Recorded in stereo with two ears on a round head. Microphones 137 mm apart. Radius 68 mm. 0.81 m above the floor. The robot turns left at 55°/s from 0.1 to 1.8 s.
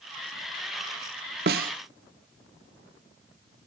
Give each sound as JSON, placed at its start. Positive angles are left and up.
{"t": 1.5, "sound": "a snare drum", "side_deg": -75, "distance_m": 0.9}